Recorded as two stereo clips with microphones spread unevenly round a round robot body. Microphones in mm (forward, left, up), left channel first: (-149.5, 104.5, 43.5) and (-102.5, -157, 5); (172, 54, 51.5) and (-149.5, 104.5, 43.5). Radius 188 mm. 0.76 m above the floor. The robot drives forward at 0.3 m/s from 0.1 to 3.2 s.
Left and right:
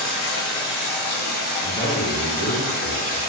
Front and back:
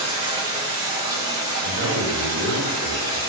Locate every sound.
0.0 s running water: 145° left, 1.1 m; by 3.3 s 160° left, 1.9 m
1.6 s a man speaking: 175° right, 0.8 m; by 3.2 s straight behind, 1.1 m